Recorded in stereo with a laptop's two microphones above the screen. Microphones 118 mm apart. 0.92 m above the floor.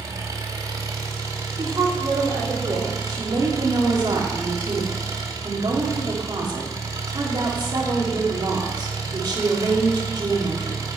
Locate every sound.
0.0 s an engine running: 30° right (ahead or behind), 1.8 m
1.6 s a woman speaking: 40° right (ahead or behind), 3 m
3.1 s a woman speaking: 40° right (ahead or behind), 1.6 m